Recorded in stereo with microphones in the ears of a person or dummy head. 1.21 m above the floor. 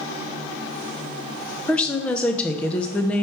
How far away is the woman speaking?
About 0.6 m.